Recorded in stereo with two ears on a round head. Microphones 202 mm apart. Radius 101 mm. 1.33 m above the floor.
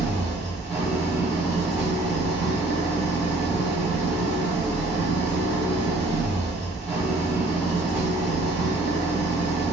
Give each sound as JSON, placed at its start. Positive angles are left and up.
{"t": 0.0, "sound": "an engine running", "side_deg": 5, "distance_m": 1.6}